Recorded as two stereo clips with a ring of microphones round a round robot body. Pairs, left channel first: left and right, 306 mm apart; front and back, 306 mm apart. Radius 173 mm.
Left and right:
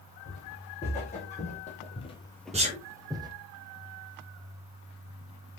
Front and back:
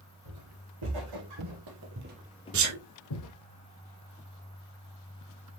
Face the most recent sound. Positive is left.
turn(degrees=-160)